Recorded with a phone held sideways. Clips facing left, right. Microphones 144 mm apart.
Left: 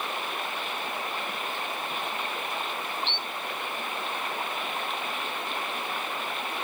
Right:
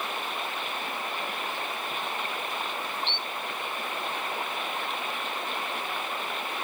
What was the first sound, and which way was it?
Only background noise.